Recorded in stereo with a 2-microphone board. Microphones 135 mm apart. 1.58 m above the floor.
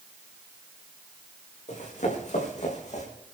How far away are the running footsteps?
About 5.5 m.